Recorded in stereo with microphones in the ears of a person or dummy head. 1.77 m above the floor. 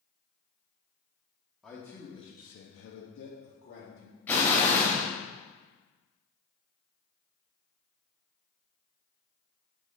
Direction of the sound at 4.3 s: 15° left (ahead or behind).